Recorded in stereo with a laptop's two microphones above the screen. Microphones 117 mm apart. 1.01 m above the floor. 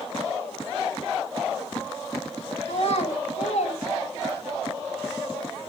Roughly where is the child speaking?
Left.